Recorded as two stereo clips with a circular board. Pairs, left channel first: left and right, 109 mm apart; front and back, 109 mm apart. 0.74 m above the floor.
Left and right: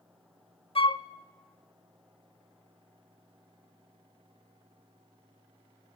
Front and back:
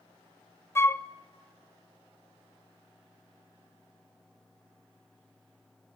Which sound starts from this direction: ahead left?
A flute, at 0.8 s.